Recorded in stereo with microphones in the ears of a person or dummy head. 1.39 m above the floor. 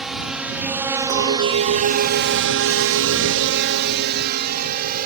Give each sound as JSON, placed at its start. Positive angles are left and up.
{"t": 0.0, "sound": "a drone", "side_deg": 0}
{"t": 1.1, "sound": "a clink", "side_deg": -65}